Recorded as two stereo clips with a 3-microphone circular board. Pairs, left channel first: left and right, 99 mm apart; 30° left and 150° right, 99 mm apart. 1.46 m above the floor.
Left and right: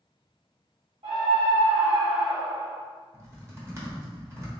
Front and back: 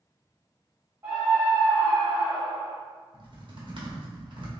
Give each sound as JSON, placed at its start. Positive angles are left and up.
{"t": 1.0, "sound": "a scream", "azimuth_deg": -90, "distance_m": 1.2}
{"t": 3.1, "sound": "typing on a keyboard", "azimuth_deg": -145, "distance_m": 1.0}